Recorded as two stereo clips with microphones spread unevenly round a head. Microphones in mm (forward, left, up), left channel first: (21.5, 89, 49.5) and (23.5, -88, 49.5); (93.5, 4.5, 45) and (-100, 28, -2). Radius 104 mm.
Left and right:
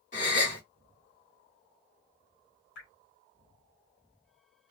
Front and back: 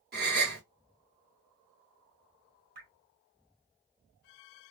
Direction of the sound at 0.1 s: 135° left.